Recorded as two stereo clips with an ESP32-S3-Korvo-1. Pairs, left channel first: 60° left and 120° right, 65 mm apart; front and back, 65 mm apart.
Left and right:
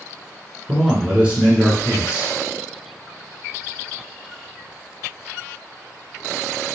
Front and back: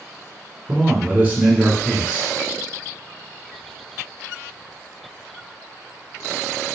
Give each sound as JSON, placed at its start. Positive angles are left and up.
{"t": 0.7, "sound": "a man speaking", "azimuth_deg": -170, "distance_m": 1.3}